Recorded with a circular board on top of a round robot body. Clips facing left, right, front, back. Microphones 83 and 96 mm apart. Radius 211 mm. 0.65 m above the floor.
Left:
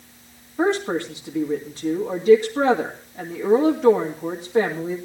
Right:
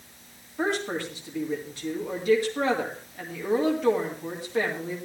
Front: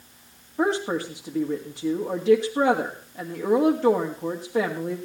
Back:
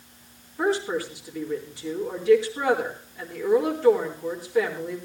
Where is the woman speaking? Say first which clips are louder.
Left 6 dB, front 1 dB; 30° left, 2.5 m.